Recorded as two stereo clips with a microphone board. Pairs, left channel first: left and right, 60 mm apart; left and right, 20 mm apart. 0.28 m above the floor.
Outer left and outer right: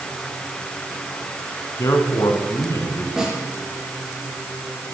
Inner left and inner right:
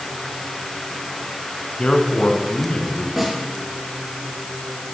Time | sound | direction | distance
1.8 | a man speaking | 60° left (ahead or behind) | 3 m
3.2 | a snare drum | 5° right (ahead or behind) | 6 m